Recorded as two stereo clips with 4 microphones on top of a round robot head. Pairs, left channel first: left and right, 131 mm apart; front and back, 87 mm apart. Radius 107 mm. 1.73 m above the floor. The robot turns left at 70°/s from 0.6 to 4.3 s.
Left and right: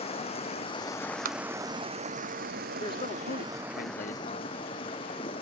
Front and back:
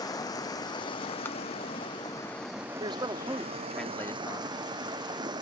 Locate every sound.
0.0 s running water: 45° left; by 5.4 s 145° left
1.2 s tapping: 75° right; by 1.4 s 85° right
2.8 s a man speaking: 155° left; by 4.5 s 50° left